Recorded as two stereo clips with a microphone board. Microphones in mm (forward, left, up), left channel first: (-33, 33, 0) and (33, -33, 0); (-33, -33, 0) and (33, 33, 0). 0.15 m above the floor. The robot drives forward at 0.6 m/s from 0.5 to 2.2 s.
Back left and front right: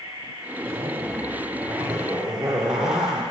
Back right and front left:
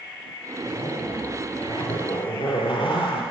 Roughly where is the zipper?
Right.